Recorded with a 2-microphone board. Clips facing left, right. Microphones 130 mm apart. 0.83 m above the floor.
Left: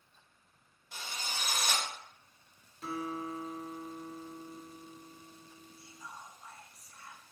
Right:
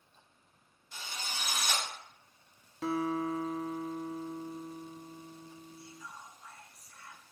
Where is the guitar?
85° right, 0.6 m.